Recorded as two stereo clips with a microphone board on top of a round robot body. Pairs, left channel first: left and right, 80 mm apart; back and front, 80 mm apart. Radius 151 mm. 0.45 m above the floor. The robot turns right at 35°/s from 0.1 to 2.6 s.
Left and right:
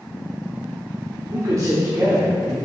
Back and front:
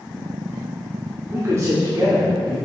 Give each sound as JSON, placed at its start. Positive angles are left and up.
{"t": 1.3, "sound": "a man speaking", "azimuth_deg": -55, "distance_m": 1.7}